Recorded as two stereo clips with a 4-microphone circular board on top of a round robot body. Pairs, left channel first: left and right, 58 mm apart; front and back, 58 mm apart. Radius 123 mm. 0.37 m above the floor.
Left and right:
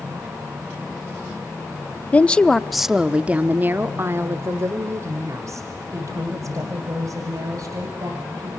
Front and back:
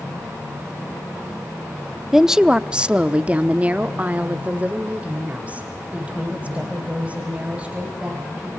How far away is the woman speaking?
About 0.9 m.